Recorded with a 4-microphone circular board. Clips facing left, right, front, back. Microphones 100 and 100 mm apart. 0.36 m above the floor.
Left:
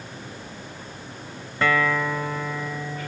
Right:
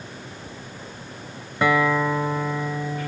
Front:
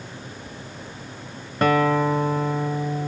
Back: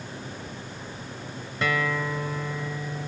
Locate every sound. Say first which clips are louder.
1.6 s a guitar: right 3 dB, front 9 dB; 20° right